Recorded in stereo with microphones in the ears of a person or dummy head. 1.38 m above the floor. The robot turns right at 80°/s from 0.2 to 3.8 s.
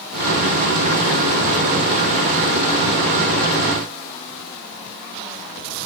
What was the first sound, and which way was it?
Only background noise.